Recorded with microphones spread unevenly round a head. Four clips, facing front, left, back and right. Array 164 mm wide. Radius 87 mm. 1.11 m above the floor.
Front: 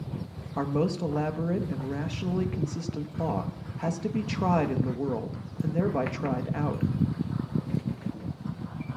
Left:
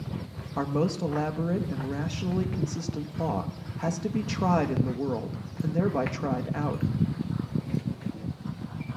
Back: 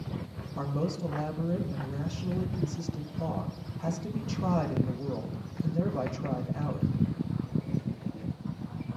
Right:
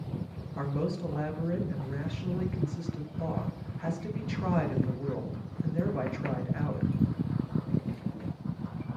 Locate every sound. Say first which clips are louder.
0.6 s a man speaking: left 5 dB, front 5 dB; 50° left, 1.2 m